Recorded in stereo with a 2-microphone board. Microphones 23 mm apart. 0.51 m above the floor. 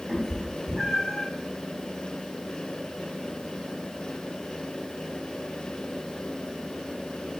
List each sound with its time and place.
0.1 s a cat meowing: 5° right (ahead or behind), 1.5 m; by 1.3 s 45° left (ahead or behind), 1.0 m